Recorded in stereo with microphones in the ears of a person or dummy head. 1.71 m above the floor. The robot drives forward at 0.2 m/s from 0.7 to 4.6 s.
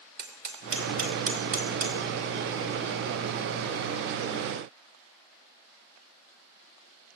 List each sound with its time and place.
0.2 s hammering: 50° right (ahead or behind), 2.5 m